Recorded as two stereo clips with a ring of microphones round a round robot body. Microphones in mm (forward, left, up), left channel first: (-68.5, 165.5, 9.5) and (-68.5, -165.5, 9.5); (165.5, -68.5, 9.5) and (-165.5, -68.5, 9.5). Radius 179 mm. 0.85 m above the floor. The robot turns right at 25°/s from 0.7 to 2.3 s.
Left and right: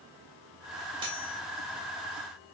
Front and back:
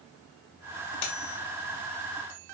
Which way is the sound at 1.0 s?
15° right.